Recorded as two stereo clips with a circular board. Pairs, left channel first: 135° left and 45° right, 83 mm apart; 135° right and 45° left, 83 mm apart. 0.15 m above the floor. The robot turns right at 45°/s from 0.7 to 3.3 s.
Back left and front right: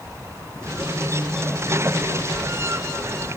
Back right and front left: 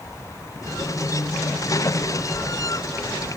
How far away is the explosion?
No explosion in this recording.